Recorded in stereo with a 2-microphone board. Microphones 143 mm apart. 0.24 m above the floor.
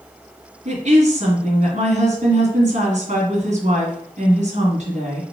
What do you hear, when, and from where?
0.7 s a woman speaking: 60° right (ahead or behind), 1.8 m